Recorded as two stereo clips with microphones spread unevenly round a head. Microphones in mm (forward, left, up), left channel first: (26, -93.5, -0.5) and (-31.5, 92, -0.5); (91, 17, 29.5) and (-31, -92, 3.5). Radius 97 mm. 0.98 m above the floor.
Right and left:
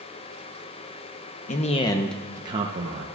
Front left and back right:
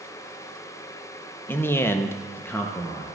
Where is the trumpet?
I don't hear a trumpet.